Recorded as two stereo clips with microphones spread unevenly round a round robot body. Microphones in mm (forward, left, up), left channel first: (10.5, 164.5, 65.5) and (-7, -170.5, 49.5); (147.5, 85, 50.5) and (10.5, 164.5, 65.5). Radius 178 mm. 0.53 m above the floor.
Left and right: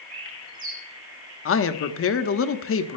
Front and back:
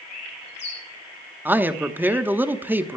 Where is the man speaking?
70° left, 1.0 m.